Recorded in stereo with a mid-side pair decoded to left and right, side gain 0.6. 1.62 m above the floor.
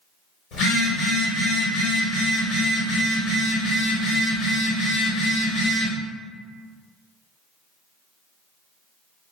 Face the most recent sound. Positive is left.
turn(degrees=65)